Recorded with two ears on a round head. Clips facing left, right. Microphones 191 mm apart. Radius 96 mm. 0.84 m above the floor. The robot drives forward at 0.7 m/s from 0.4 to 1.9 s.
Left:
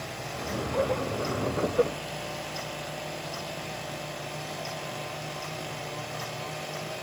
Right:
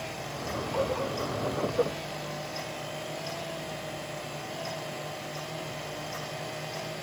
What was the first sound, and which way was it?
Only background noise.